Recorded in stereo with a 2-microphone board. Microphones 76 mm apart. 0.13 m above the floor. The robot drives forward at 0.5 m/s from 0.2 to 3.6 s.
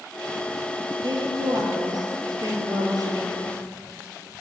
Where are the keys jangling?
I don't hear keys jangling.